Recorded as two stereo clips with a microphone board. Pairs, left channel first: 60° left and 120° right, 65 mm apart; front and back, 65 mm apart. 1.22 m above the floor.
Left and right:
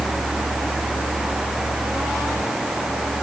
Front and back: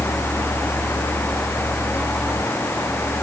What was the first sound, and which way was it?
Only background noise.